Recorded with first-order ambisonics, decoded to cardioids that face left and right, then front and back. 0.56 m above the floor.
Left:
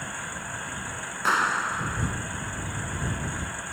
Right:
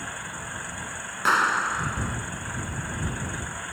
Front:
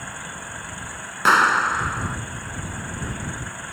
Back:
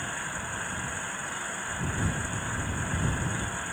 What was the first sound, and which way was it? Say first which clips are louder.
A clap: right 2 dB, front 18 dB; 10° right.